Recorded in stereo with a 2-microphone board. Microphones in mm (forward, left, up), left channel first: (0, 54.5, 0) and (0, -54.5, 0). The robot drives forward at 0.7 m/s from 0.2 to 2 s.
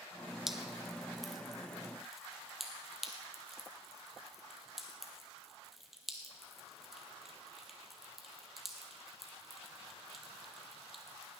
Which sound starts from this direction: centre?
Dripping, at 0.5 s.